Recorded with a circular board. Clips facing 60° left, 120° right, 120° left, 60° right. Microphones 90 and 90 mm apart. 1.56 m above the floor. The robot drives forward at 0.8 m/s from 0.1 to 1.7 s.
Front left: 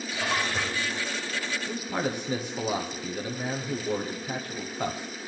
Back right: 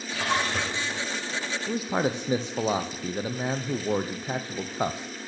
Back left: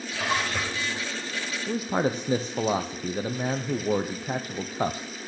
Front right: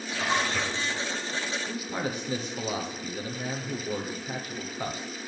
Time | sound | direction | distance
0.1 | a splash | 150° right | 8.5 m
1.7 | a man speaking | 175° left | 0.8 m